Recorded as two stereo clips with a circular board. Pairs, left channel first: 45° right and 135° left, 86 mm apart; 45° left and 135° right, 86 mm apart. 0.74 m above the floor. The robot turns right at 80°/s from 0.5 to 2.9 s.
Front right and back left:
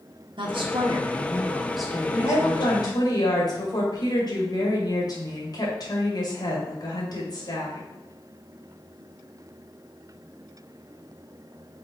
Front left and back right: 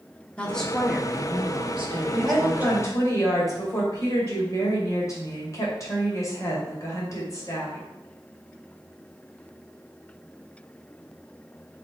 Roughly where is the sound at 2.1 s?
Right.